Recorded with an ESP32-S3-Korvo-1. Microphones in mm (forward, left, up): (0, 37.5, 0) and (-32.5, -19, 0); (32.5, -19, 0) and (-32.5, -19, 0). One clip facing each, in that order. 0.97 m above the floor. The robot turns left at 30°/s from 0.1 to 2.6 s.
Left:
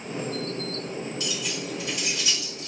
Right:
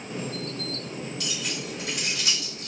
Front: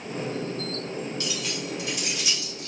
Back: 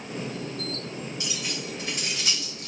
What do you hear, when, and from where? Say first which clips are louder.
1.2 s keys jangling: left 2 dB, front 2 dB; 110° right, 2 m; by 2.7 s 155° right, 2 m